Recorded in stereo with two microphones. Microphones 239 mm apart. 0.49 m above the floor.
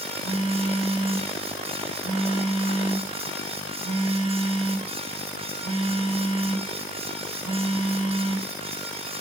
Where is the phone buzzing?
70° right (ahead or behind), 1.4 m.